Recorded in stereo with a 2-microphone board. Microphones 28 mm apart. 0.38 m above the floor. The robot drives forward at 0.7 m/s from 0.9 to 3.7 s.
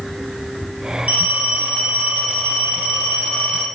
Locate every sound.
1.1 s a phone ringing: 55° right (ahead or behind), 6 m; by 3.7 s 45° right (ahead or behind), 7 m